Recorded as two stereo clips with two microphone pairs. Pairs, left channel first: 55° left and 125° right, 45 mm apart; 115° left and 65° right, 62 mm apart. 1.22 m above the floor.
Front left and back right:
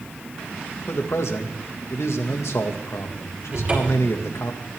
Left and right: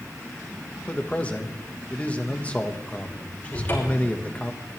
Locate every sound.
0.9 s a man speaking: 50° left, 1.5 m
3.5 s a cupboard door: 175° left, 4.5 m